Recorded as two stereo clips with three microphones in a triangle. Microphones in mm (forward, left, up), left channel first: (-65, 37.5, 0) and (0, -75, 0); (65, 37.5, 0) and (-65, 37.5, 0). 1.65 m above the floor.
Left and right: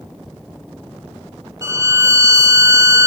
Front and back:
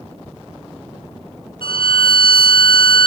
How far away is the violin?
About 0.7 m.